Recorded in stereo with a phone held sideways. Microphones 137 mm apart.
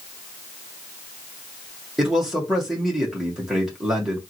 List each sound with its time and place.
2.0 s a man speaking: 5° right (ahead or behind), 1.7 m